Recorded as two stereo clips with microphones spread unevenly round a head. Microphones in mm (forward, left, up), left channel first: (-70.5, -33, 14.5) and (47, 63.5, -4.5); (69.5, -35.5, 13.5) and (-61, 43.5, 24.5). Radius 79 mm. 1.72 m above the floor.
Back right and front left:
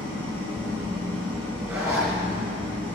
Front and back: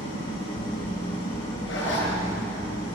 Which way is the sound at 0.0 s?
20° right.